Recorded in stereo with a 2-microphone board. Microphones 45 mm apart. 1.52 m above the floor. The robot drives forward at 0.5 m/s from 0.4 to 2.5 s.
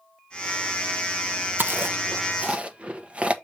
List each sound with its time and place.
1.6 s chewing: 45° right (ahead or behind), 0.6 m; by 3.3 s 30° right (ahead or behind), 1.0 m